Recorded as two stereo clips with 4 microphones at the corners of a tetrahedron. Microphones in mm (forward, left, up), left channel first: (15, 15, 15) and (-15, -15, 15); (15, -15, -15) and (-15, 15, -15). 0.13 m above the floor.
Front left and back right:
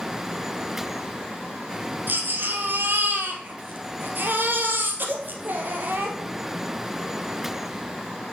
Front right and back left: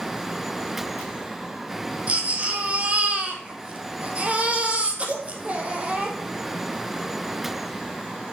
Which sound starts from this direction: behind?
A baby crying, at 2.1 s.